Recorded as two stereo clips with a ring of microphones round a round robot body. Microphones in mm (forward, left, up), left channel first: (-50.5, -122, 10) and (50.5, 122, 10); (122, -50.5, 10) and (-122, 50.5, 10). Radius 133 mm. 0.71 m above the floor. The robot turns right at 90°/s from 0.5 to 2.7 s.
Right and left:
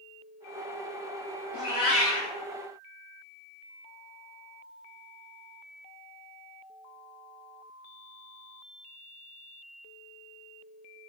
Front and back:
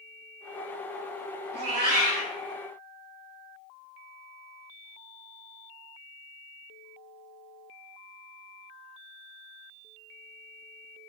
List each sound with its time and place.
1.5 s a cat meowing: 150° left, 1.8 m; by 2.3 s 140° right, 1.8 m